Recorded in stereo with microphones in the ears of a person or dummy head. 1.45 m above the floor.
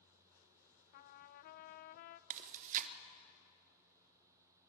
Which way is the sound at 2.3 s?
40° right (ahead or behind).